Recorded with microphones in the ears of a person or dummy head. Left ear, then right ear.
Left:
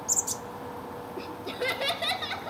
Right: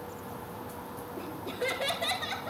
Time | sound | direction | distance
1.2 | laughter | 30° left (ahead or behind) | 2.5 m